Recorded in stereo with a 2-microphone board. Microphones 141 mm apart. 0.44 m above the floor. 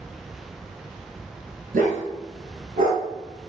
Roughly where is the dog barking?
Right.